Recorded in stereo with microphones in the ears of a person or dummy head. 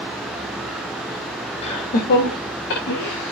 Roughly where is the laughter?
Left.